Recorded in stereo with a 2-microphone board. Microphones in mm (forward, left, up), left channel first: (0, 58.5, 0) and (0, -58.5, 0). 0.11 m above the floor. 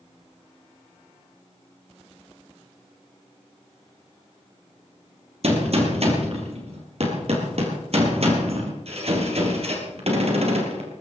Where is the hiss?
No hiss in this recording.